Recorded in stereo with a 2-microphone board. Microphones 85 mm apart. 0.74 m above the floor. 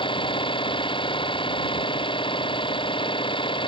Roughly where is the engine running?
Left.